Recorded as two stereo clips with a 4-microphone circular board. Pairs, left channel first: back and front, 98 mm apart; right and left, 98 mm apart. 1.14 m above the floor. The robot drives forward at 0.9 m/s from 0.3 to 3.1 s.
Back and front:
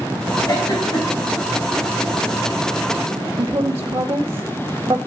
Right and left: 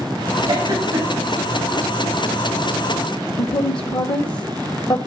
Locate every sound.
0.5 s a giggle: 125° left, 4 m; by 1.3 s 135° left, 4.5 m
3.4 s a woman speaking: 55° right, 0.6 m